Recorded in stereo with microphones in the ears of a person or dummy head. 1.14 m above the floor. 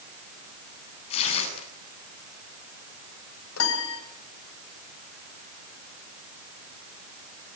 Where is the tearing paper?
35° left (ahead or behind), 8 m.